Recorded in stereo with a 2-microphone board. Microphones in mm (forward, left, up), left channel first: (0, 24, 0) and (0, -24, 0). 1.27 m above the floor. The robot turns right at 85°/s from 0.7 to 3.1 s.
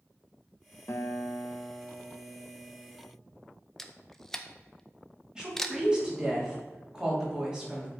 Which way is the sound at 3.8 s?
10° left (ahead or behind).